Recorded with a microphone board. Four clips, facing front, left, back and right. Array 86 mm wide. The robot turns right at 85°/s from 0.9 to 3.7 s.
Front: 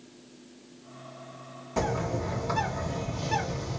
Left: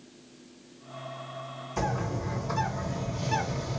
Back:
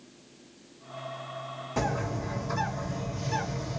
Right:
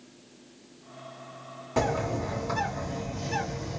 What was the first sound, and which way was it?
A bird, 90° right.